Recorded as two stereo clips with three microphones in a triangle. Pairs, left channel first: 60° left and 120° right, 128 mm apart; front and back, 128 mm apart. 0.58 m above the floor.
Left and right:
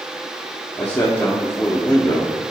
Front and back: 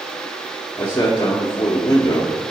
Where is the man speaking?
10° right, 1.0 m.